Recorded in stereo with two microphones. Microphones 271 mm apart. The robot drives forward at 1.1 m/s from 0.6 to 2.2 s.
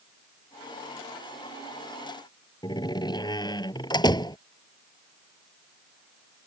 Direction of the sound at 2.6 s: 15° left (ahead or behind).